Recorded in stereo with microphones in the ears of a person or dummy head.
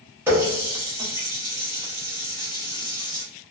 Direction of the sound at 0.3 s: 10° right (ahead or behind).